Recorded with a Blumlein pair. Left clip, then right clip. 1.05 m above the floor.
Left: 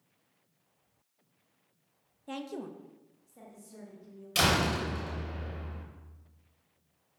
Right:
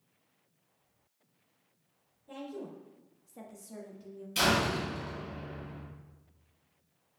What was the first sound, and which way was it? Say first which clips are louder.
A woman speaking: left 3 dB; 55° left.